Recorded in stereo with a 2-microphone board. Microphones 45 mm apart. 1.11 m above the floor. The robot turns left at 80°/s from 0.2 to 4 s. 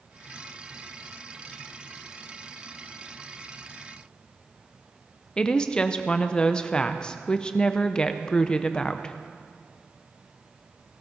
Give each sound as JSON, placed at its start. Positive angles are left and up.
{"t": 5.4, "sound": "a woman speaking", "side_deg": 20, "distance_m": 0.6}